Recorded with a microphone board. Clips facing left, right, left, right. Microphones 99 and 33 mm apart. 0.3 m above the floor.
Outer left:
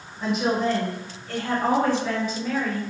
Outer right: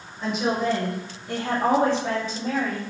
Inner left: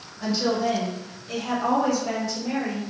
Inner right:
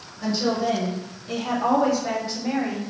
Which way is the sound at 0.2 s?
5° left (ahead or behind).